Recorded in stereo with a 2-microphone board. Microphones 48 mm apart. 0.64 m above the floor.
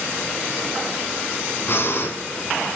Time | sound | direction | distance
1.7 | breathing | 50° left (ahead or behind) | 3.5 m